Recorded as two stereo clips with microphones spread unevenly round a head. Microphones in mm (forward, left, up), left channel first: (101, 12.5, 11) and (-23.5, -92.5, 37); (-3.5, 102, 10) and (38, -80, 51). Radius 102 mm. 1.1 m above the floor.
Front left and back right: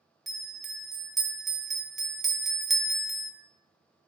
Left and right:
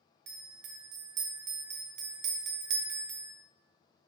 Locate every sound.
0.3 s a bell: 50° right, 0.7 m